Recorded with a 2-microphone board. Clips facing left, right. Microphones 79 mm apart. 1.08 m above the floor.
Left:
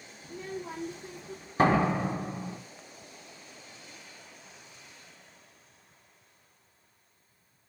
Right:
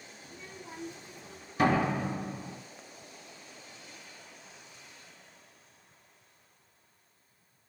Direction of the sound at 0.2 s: 80° left.